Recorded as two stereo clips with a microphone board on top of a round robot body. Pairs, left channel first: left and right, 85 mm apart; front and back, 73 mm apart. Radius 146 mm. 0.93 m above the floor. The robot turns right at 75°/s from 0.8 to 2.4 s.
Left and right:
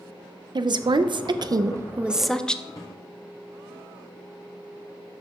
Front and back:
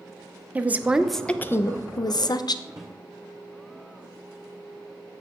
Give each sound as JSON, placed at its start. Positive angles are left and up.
{"t": 0.6, "sound": "a woman speaking", "azimuth_deg": -110, "distance_m": 0.6}
{"t": 2.7, "sound": "a drawer", "azimuth_deg": 135, "distance_m": 0.8}